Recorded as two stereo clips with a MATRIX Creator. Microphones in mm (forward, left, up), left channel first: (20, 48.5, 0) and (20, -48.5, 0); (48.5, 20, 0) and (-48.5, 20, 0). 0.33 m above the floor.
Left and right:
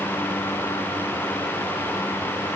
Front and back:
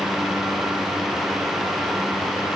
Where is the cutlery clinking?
I don't hear cutlery clinking.